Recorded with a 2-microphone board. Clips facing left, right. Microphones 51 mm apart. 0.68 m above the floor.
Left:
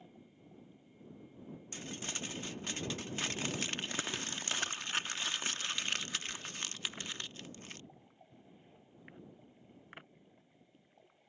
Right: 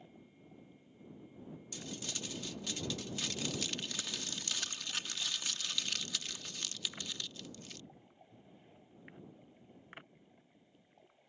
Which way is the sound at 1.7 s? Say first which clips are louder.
Left 2 dB; 35° left (ahead or behind).